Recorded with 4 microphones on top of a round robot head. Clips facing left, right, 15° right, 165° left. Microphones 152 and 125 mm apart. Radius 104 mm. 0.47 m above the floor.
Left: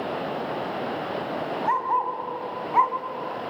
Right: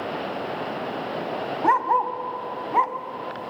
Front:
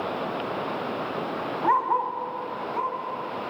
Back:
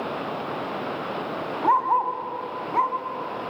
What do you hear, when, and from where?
1.6 s a dog barking: 115° right, 1.5 m; by 3.5 s 160° right, 2 m